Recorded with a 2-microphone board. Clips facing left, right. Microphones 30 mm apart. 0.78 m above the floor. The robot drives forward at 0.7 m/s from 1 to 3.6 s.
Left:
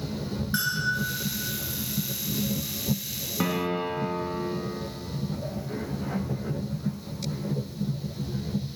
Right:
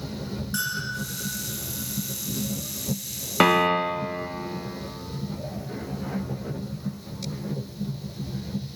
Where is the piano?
55° right (ahead or behind), 0.5 m.